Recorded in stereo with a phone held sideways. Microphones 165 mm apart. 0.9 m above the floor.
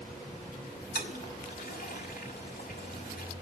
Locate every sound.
0.9 s a toilet flushing: 70° left (ahead or behind), 1.9 m